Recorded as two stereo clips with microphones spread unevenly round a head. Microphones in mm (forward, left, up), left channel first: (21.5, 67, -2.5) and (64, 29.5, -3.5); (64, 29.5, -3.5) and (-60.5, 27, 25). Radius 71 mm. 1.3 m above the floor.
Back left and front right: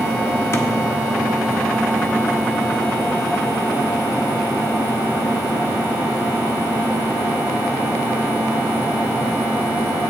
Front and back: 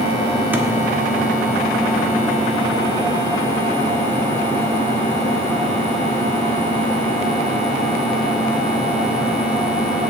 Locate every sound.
0.5 s a thud: 115° left, 1.2 m